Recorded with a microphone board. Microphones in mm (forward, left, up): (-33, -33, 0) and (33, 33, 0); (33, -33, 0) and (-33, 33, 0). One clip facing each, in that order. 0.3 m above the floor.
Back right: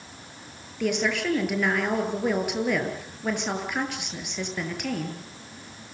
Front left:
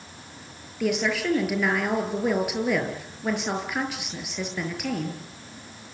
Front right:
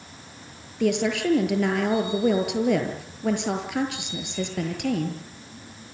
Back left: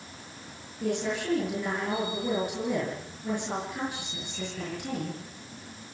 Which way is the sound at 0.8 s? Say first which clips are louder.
Front left 1 dB, front right 7 dB; 45° right.